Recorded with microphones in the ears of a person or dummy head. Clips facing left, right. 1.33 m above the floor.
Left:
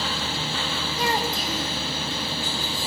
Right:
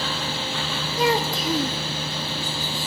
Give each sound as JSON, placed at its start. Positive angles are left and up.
{"t": 1.0, "sound": "a child speaking", "side_deg": -75, "distance_m": 1.4}